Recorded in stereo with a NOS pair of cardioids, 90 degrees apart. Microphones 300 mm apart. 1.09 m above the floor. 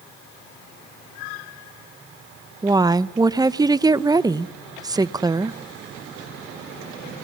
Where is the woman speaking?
15° right, 0.6 m.